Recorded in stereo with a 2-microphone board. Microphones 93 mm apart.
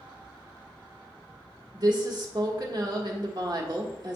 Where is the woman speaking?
50° right (ahead or behind), 1.3 m.